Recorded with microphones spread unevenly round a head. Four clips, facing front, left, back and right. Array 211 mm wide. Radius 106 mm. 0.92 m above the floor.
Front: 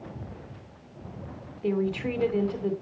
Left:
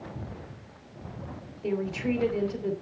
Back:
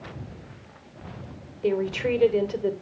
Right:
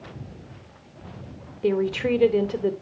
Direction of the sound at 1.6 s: 110° right.